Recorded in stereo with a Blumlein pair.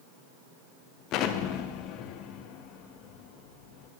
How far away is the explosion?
About 0.6 m.